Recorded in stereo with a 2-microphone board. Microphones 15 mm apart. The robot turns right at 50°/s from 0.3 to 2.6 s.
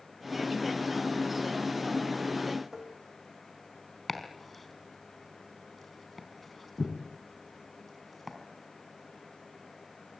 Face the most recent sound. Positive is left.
turn(degrees=0)  # may be behind; listen again after turning